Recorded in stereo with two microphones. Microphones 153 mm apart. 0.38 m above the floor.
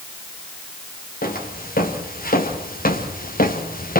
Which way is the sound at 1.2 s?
70° left (ahead or behind).